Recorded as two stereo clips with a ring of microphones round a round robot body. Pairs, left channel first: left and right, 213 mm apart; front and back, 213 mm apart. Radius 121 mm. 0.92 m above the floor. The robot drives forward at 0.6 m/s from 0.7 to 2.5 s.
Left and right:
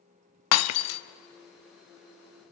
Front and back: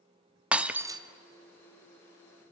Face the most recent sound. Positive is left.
turn(degrees=150)